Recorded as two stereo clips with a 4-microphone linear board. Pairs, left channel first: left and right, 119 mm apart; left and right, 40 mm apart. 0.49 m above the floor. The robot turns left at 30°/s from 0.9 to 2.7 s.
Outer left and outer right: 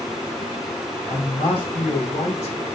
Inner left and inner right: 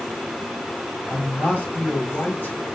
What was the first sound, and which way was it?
A man speaking, 150° left.